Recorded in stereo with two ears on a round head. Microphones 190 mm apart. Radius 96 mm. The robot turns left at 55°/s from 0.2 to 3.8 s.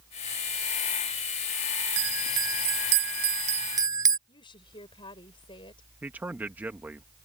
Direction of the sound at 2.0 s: 60° right.